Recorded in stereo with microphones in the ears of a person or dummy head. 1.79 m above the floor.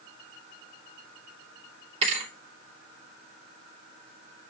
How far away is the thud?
About 3 m.